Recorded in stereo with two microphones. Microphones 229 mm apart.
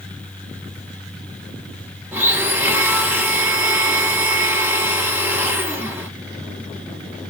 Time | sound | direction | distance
2.1 | a blender | 10° right (ahead or behind) | 0.7 m